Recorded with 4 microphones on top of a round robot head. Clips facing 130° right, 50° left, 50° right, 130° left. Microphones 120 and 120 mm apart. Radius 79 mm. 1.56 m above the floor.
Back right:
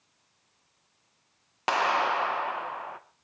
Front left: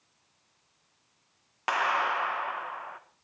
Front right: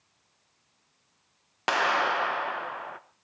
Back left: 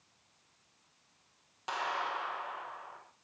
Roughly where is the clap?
Right.